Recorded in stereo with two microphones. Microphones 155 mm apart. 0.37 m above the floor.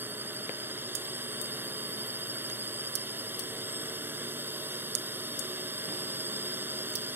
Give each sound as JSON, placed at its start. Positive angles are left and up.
{"t": 0.0, "sound": "a drone", "side_deg": -15}